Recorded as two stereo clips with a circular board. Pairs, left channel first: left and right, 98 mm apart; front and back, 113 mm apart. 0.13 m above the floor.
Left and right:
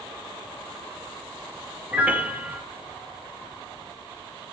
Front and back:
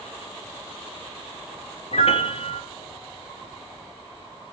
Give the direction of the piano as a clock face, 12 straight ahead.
1 o'clock.